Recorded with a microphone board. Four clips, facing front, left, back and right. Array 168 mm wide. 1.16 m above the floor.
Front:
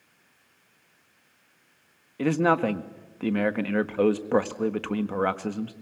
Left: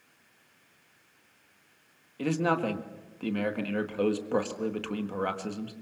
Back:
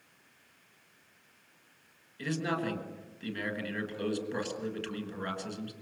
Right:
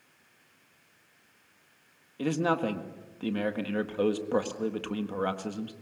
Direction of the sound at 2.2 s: 5° right.